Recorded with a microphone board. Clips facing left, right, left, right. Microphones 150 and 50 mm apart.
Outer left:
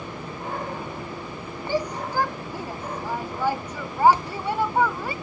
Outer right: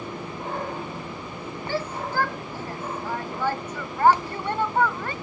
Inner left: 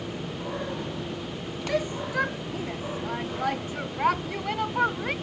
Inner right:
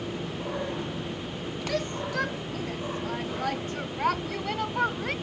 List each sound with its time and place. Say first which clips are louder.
1.7 s a shout: outer left 3 dB, inner left 3 dB; 15° left (ahead or behind); by 5.1 s 10° left (ahead or behind)